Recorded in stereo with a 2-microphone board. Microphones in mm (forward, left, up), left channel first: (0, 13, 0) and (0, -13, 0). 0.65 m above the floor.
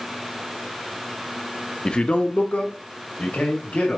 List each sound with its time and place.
1.9 s a man speaking: 30° left (ahead or behind), 0.7 m; by 4.0 s 60° left (ahead or behind), 3.5 m